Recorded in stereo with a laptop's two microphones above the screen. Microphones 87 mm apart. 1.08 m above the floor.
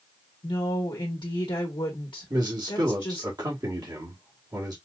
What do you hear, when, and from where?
0.4 s a woman speaking: 65° left (ahead or behind), 1.0 m
2.3 s a man speaking: 50° right (ahead or behind), 1.3 m